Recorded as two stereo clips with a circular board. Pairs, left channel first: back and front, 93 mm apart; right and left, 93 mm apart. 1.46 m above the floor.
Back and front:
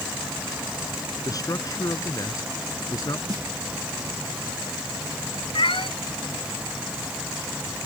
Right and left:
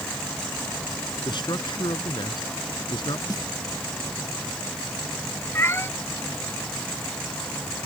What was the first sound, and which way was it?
A man speaking, 130° right.